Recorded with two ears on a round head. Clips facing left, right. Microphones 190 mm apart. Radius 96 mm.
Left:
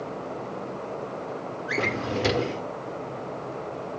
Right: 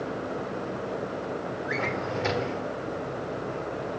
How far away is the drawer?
About 1.2 m.